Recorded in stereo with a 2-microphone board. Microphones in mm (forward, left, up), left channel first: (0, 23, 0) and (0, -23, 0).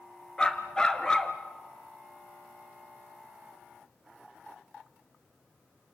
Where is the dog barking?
15° left (ahead or behind), 1.8 m.